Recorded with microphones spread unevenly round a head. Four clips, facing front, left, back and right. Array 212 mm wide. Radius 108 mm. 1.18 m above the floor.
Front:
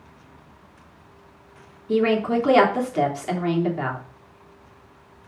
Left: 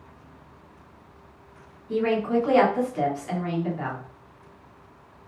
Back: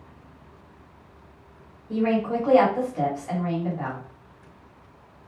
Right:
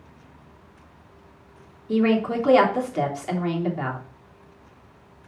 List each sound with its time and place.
1.9 s a woman speaking: 30° right, 2.5 m